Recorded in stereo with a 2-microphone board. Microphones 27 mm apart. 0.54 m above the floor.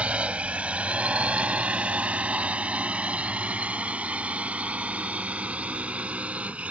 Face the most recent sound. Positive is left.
turn(degrees=-55)  # may be behind; listen again after turning